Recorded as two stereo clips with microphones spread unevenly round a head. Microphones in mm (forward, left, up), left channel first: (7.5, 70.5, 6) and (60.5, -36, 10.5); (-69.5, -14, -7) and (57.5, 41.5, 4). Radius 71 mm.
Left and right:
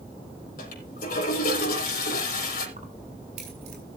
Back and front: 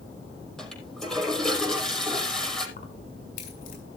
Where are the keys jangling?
115° right, 4.5 m.